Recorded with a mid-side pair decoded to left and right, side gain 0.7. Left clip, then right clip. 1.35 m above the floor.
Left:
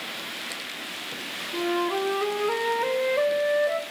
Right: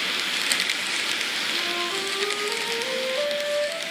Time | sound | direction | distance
1.5 | a flute | 35° left | 0.8 m